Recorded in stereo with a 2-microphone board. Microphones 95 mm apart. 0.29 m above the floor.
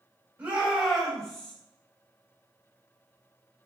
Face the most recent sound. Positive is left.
turn(degrees=10)  # may be behind; listen again after turning